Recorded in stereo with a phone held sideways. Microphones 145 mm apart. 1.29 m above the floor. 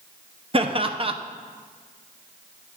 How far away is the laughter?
About 0.6 m.